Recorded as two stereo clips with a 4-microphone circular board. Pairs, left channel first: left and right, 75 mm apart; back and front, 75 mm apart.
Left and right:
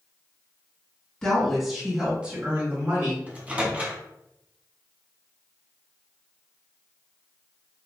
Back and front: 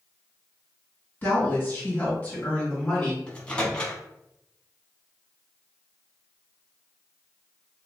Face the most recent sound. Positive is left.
turn(degrees=-125)